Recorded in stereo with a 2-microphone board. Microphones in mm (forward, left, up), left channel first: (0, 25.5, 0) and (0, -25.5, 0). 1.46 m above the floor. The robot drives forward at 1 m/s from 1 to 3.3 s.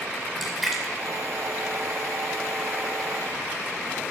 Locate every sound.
0.4 s a splash: centre (ahead or behind), 2.5 m